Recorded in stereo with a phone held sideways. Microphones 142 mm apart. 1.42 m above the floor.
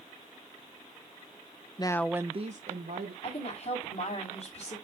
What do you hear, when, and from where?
1.8 s a woman speaking: 30° left (ahead or behind), 0.8 m; by 3.1 s 75° right (ahead or behind), 1.5 m
3.2 s a woman speaking: 50° left (ahead or behind), 4.5 m